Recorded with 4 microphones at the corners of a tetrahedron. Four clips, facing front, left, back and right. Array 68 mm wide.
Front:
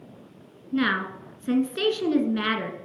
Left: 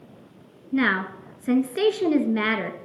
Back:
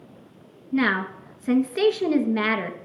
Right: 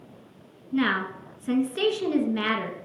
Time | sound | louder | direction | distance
0.7 | a woman speaking | left 2 dB, back 2 dB | 125° left | 1.2 m